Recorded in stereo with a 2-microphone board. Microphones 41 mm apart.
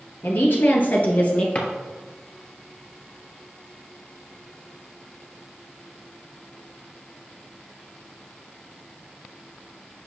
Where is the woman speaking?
55° left (ahead or behind), 1.9 m; by 1.4 s 30° left (ahead or behind), 1.2 m.